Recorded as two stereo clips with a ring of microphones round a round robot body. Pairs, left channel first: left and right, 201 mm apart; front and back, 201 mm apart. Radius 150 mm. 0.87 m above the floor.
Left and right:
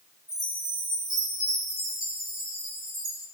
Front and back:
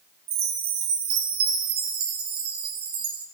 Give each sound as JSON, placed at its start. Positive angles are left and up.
{"t": 0.3, "sound": "a chime", "azimuth_deg": -175, "distance_m": 0.7}